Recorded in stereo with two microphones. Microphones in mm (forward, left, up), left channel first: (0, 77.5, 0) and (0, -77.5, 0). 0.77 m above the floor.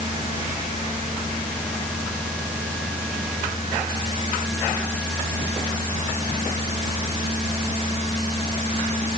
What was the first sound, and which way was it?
Only background noise.